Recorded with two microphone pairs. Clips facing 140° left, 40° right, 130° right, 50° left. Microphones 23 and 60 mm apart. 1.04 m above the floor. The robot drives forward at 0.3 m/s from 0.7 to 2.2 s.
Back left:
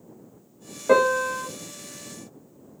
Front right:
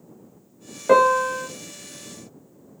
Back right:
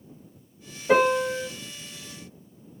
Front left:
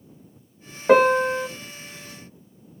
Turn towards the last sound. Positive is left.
turn(degrees=65)